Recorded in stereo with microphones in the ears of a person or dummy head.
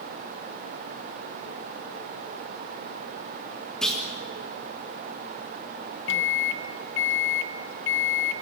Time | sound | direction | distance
3.8 | a clunk | 5° left (ahead or behind) | 2.5 m
6.1 | a microwave | 75° left (ahead or behind) | 0.7 m